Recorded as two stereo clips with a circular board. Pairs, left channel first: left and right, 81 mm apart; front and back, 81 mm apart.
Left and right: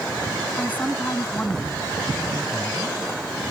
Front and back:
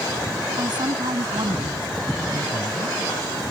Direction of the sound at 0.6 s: 160° left.